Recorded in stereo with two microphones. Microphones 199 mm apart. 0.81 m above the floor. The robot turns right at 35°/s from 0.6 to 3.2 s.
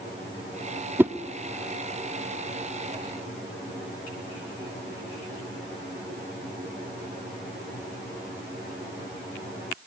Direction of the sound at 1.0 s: 10° right (ahead or behind).